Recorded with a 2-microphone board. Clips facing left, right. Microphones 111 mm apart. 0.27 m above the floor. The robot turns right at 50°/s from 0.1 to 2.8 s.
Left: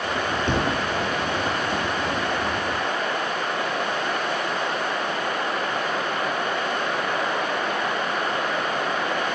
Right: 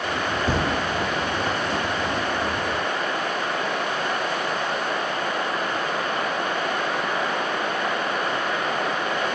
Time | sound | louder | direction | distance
0.5 | a thud | even | 5° right (ahead or behind) | 2.5 m